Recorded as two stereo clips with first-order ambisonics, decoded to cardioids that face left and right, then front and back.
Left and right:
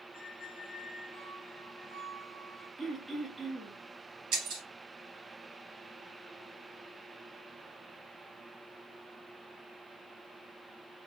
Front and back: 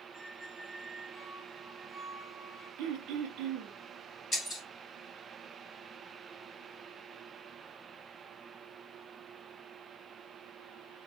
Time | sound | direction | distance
0.1 | a squeak | 90° left | 1.5 m
2.8 | throat clearing | 170° right | 0.8 m
4.3 | breaking glass | 80° right | 2 m